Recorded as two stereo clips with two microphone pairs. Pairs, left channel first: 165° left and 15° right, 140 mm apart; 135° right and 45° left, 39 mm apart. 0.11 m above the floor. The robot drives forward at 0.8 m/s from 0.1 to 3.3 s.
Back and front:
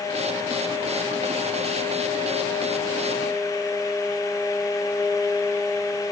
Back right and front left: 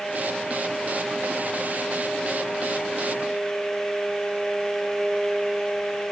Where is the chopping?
No chopping in this recording.